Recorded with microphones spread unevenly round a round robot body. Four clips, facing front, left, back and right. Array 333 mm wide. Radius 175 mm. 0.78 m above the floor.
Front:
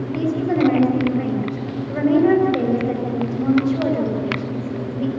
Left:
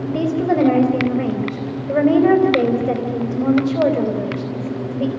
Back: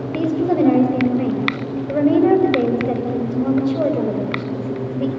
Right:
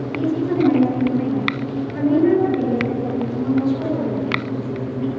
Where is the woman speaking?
135° left, 3.5 m.